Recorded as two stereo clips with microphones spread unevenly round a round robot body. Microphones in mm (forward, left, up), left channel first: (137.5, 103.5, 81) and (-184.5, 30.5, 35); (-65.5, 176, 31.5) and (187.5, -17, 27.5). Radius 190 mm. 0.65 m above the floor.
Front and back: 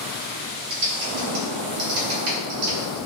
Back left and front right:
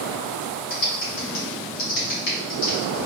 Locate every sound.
0.7 s typing on a keyboard: 155° left, 1.6 m